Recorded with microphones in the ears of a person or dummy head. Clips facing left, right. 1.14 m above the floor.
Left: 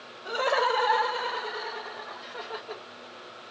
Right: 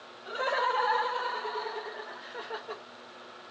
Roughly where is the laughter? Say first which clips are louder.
Left 5 dB; left.